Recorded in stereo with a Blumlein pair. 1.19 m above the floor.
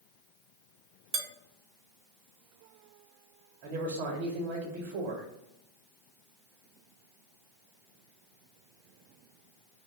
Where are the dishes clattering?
45° right, 0.6 m.